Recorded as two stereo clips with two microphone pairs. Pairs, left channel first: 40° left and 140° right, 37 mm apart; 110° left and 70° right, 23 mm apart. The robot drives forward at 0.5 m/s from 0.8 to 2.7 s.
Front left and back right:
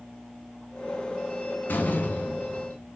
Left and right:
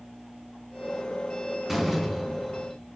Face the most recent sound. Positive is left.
turn(degrees=20)